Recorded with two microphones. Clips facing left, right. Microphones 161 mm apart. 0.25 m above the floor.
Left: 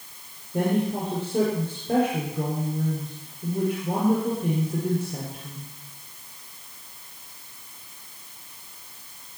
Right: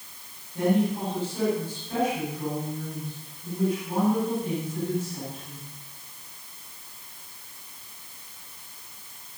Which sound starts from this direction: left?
A woman speaking, at 0.5 s.